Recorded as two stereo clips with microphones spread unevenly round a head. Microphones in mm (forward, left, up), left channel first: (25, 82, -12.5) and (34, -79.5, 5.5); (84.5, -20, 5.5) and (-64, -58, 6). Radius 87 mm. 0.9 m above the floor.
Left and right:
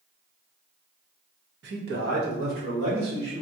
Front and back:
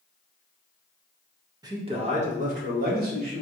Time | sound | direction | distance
1.6 | a man speaking | 100° right | 0.8 m